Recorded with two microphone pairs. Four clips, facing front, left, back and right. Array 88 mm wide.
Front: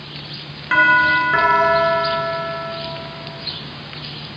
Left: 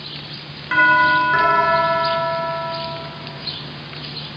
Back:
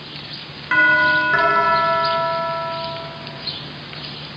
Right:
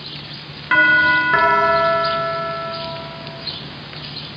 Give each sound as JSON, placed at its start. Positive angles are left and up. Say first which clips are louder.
{"t": 0.7, "sound": "a doorbell", "louder": "even, front 1 dB", "azimuth_deg": -90, "distance_m": 1.7}